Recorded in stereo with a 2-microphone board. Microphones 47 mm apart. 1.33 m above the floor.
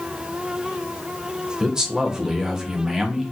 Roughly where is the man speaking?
Centre.